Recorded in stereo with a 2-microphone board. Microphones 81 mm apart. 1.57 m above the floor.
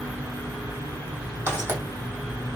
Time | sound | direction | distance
1.5 | footsteps | 25° right (ahead or behind) | 2.5 m